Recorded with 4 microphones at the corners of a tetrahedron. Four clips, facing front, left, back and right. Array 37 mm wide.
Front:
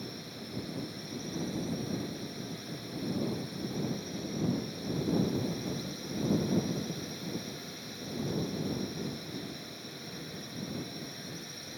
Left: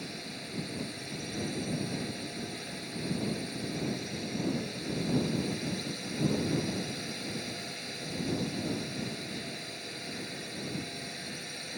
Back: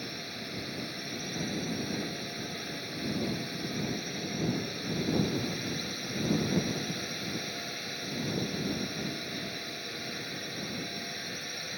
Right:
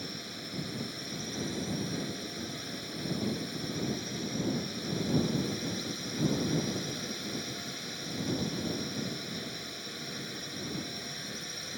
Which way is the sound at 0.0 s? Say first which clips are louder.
Even, back 4 dB; 170° left.